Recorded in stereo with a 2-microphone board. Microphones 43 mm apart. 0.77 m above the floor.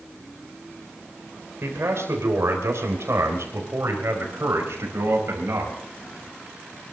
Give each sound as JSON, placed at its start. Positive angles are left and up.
{"t": 1.6, "sound": "a man speaking", "side_deg": -75, "distance_m": 3.5}